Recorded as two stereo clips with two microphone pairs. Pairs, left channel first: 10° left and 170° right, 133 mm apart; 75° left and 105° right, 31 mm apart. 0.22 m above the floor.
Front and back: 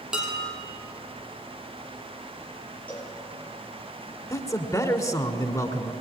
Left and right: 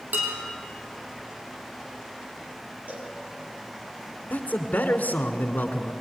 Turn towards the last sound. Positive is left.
turn(degrees=70)